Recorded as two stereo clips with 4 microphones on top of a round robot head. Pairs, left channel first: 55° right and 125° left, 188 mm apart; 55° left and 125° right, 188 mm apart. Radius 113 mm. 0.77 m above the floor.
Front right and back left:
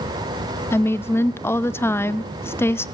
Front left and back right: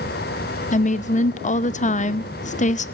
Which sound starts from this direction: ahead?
A woman speaking, at 0.7 s.